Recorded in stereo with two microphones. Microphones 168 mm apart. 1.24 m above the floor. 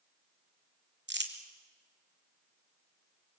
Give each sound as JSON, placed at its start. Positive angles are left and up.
{"t": 1.1, "sound": "crumpling", "side_deg": -85, "distance_m": 2.5}